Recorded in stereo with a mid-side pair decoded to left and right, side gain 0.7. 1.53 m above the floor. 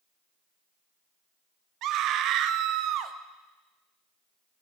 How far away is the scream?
About 0.6 m.